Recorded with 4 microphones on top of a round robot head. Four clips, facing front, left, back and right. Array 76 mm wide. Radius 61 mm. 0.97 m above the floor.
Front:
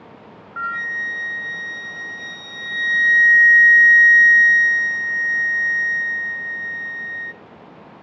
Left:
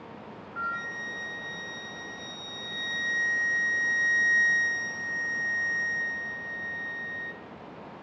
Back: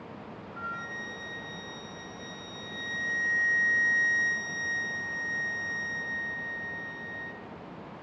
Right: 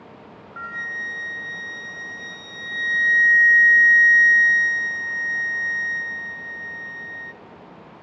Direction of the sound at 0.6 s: 15° right.